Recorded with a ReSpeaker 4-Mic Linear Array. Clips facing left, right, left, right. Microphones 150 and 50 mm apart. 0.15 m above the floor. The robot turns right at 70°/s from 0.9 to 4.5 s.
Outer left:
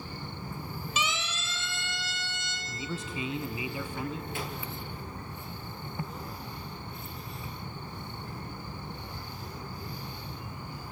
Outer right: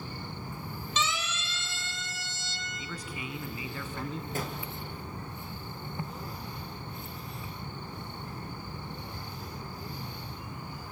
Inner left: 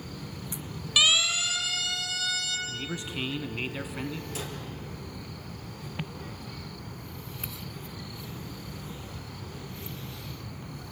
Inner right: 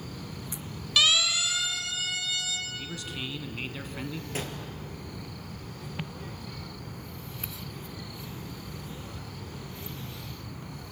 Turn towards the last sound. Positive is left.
turn(degrees=-50)  # may be behind; listen again after turning